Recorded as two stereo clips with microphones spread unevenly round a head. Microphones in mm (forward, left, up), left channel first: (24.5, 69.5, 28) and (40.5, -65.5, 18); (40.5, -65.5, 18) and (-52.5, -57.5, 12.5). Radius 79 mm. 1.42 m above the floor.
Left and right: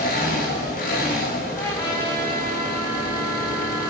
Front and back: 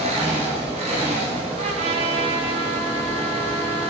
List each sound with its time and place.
0.0 s an engine running: 135° left, 3 m
1.6 s a trumpet: 170° left, 2 m